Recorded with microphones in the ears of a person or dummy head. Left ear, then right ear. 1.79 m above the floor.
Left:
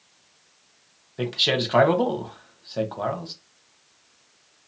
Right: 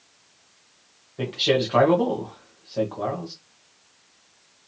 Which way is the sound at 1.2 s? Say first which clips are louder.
Even; 20° left (ahead or behind).